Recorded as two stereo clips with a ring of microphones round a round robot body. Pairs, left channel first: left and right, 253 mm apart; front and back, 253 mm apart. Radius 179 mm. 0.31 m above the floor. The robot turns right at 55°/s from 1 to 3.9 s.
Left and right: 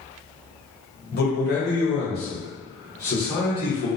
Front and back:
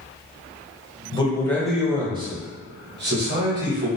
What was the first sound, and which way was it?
A man speaking, 60° left.